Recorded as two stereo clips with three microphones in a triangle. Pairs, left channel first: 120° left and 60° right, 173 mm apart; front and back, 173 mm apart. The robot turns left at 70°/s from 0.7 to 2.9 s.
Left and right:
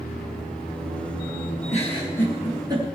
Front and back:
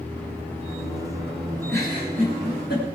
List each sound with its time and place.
1.7 s a giggle: 80° left, 4 m; by 2.9 s 5° right, 4 m